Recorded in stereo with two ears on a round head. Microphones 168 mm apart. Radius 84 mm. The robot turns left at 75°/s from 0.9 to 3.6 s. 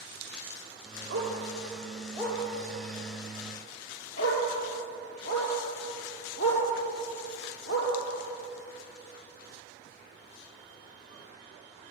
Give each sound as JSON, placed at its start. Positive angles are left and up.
{"t": 1.1, "sound": "a dog barking", "side_deg": -90, "distance_m": 6.0}